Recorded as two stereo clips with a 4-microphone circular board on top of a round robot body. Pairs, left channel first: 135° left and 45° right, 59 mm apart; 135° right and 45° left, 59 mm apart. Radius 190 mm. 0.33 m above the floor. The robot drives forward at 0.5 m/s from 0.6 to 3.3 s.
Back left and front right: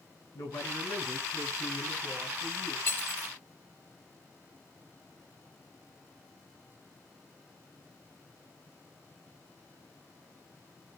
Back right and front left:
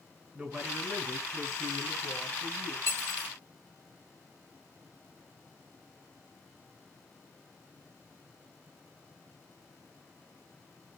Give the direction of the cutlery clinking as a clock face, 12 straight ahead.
6 o'clock.